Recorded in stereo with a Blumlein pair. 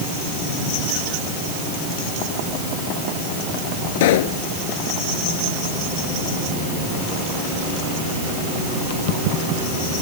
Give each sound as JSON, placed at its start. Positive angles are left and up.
{"t": 4.0, "sound": "a pop", "azimuth_deg": 55}